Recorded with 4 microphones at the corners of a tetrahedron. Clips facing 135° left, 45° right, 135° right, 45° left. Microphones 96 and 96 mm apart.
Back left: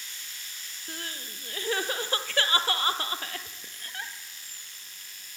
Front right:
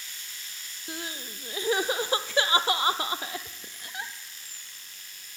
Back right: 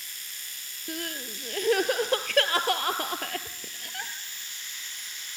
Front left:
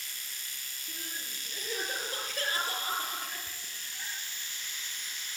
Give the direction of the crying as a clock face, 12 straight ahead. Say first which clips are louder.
Front right 3 dB, back right 10 dB; 4 o'clock.